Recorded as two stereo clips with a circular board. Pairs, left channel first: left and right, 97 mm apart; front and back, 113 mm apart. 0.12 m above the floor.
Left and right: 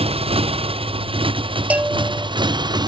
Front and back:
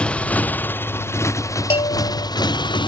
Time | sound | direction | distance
0.0 | a motorcycle | 80° right | ?
1.7 | a bell | 15° right | ?